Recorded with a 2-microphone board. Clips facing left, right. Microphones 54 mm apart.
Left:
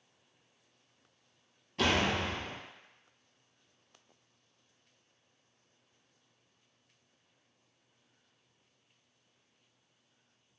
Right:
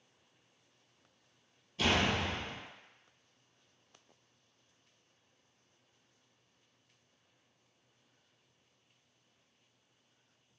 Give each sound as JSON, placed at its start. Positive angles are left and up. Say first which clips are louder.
{"t": 1.8, "sound": "a door slam", "louder": "left 1 dB", "side_deg": 70, "distance_m": 1.0}